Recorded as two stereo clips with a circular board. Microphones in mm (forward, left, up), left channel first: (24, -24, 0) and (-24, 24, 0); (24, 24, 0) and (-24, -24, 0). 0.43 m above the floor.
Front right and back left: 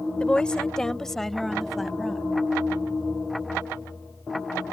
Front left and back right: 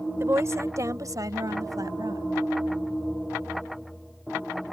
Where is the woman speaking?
110° right; by 2.3 s 135° right.